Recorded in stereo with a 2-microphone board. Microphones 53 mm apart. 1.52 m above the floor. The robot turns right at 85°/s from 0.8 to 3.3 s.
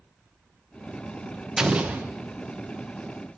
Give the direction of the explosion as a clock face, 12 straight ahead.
6 o'clock.